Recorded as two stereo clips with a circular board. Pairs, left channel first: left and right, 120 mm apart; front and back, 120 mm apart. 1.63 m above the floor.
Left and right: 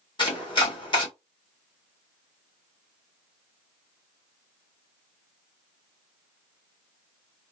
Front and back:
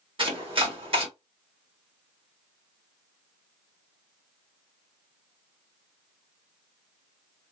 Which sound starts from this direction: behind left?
Chopping, at 0.2 s.